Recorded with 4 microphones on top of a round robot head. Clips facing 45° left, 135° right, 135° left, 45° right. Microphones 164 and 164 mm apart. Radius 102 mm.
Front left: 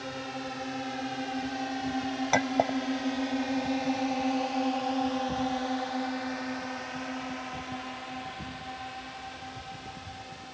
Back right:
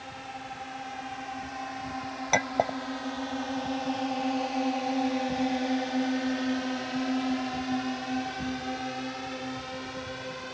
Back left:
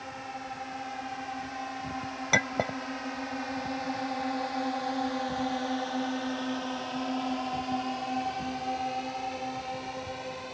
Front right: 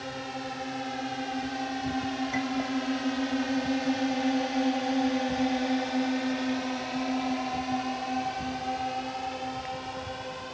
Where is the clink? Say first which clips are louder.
Even, back left 2 dB; 135° left.